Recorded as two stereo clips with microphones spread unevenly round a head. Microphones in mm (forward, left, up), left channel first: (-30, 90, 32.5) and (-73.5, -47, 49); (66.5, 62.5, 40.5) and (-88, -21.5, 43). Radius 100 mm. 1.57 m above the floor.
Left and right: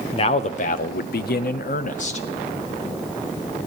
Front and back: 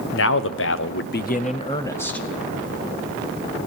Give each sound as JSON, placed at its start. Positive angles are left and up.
{"t": 0.1, "sound": "a man speaking", "azimuth_deg": 15, "distance_m": 1.1}